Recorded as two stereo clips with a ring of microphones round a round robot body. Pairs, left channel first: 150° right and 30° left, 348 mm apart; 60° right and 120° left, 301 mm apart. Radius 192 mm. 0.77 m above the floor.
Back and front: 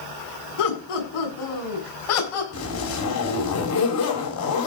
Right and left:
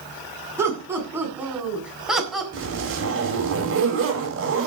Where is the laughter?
160° right, 7.5 m; by 2.4 s 150° right, 6 m.